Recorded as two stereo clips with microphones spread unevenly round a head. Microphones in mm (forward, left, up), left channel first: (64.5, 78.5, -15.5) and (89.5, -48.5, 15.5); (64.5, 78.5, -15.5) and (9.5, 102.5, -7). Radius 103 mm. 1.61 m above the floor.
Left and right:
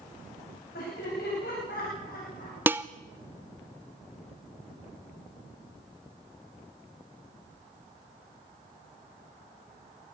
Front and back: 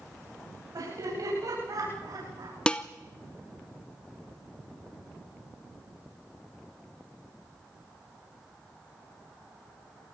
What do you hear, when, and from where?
0.7 s laughter: 140° left, 9.5 m; by 2.6 s 150° left, 8.5 m
2.7 s dishes clattering: 100° right, 0.6 m